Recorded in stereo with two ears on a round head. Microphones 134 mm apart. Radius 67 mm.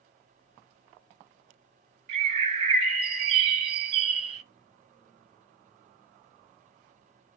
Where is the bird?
45° right (ahead or behind), 0.8 m.